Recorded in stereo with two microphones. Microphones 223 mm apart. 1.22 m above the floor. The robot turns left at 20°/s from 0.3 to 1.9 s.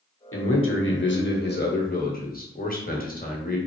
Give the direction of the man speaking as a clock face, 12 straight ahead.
10 o'clock.